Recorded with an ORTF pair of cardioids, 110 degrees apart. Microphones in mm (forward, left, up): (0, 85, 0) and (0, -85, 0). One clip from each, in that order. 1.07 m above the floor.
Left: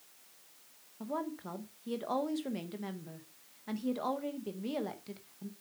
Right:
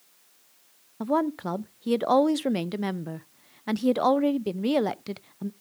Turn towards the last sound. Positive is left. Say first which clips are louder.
# right 13 dB
turn(degrees=-60)